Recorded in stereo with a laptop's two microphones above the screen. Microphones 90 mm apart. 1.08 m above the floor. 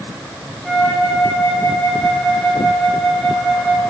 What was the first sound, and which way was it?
A flute, centre (ahead or behind).